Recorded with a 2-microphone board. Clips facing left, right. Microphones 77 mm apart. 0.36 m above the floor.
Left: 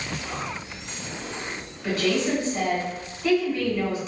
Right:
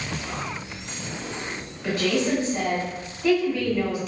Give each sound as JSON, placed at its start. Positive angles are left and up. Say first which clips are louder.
{"t": 1.8, "sound": "a woman speaking", "louder": "even", "side_deg": -20, "distance_m": 1.4}